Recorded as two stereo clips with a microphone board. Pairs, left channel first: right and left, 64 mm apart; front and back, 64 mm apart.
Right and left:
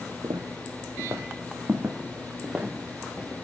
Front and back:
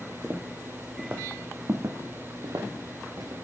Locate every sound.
0.2 s footsteps: 95° left, 1.5 m; by 3.3 s straight behind, 2.5 m